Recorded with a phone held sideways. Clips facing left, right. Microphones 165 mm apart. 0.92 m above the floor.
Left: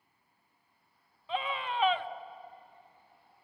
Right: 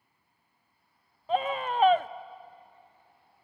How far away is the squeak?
I don't hear a squeak.